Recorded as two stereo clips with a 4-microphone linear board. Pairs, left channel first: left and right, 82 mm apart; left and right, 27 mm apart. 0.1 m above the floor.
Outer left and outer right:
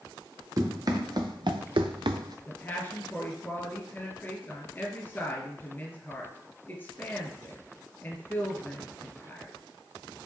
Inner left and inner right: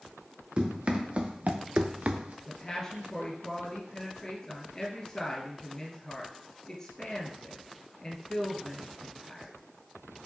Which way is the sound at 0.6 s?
45° right (ahead or behind).